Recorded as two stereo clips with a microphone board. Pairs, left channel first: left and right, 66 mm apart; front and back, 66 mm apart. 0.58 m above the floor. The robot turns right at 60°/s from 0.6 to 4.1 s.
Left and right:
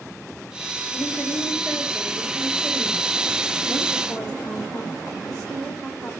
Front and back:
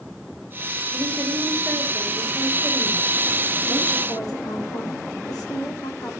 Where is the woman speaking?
160° left, 1.8 m; by 6.1 s 10° right, 1.8 m.